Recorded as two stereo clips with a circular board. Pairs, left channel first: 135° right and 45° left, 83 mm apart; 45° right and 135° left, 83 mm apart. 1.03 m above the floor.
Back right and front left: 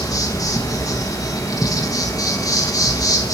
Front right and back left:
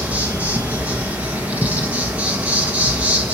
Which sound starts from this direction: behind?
An insect, at 0.0 s.